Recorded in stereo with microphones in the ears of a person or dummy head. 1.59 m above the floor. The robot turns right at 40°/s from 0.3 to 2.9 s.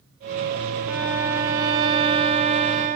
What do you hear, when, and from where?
0.9 s a violin: 5° right (ahead or behind), 1.0 m; by 3.0 s 20° right (ahead or behind), 1.0 m